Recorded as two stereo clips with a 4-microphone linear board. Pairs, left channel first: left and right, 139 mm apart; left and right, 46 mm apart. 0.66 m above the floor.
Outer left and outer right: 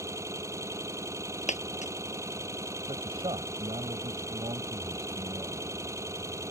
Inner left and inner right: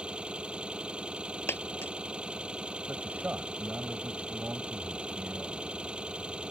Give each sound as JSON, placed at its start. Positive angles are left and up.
{"t": 0.0, "sound": "an engine running", "side_deg": -20}
{"t": 1.5, "sound": "a dropped coin", "side_deg": 55}
{"t": 2.9, "sound": "a man speaking", "side_deg": -40}